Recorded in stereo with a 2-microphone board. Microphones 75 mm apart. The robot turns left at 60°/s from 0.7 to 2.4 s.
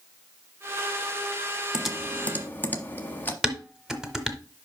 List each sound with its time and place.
1.7 s typing on a keyboard: 10° right (ahead or behind), 0.9 m; by 3.3 s 25° left (ahead or behind), 0.9 m
3.4 s dishes clattering: 5° right (ahead or behind), 1.0 m